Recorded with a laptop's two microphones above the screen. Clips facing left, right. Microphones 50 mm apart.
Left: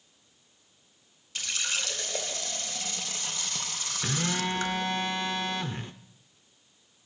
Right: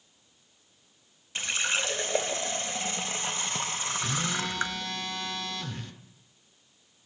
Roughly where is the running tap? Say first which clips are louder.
Right 4 dB; right.